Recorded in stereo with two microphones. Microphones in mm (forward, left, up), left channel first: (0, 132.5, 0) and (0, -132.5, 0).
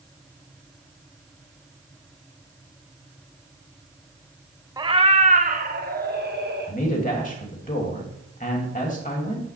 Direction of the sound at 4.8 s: 15° right (ahead or behind).